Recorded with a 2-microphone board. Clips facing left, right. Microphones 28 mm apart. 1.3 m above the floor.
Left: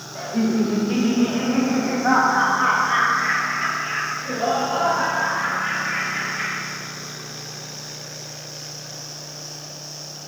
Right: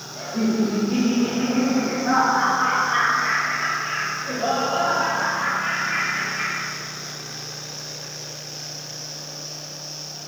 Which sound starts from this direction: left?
Laughter, at 0.1 s.